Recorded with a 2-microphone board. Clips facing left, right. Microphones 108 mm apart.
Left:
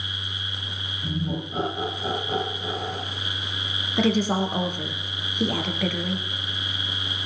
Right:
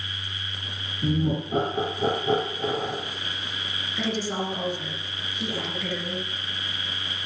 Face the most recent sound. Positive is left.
turn(degrees=60)  # may be behind; listen again after turning